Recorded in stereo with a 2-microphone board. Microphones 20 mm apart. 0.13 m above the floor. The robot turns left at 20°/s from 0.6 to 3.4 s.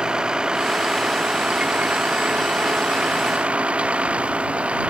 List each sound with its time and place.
0.0 s a vehicle: 45° right; by 4.9 s 100° right